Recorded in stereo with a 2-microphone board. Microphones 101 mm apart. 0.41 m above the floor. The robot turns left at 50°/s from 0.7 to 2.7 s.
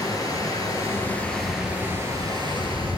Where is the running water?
40° left, 1.4 m; by 3.0 s 60° right, 1.4 m.